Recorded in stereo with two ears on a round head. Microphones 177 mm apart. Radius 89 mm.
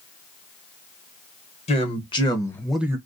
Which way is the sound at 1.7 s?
30° left (ahead or behind).